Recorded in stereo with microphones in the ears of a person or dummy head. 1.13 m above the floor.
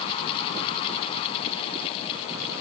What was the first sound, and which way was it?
Only background noise.